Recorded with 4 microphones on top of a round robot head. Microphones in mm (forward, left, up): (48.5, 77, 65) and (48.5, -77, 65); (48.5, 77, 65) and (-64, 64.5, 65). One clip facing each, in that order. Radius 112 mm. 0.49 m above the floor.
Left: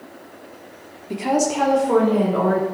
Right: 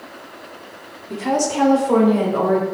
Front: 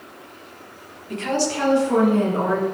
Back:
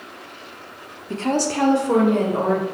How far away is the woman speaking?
About 1.2 m.